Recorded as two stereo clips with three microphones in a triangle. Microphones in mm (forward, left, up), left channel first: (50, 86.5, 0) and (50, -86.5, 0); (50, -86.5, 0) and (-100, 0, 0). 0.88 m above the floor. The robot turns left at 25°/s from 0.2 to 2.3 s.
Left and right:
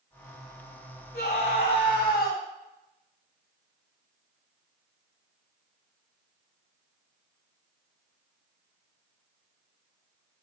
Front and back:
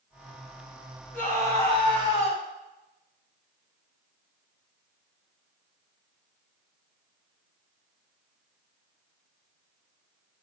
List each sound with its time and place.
1.1 s a scream: 50° left, 5 m; by 2.4 s 20° left, 5 m